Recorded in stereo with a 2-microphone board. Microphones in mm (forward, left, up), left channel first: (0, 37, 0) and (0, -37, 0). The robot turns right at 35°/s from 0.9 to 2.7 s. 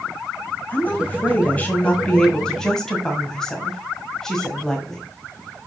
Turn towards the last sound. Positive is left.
turn(degrees=10)  # may be behind; listen again after turning